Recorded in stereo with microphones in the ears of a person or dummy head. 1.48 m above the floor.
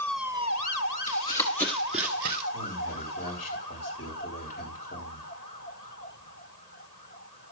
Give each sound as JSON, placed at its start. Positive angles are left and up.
{"t": 1.1, "sound": "running footsteps", "side_deg": 30, "distance_m": 2.0}
{"t": 2.5, "sound": "a man speaking", "side_deg": 45, "distance_m": 8.0}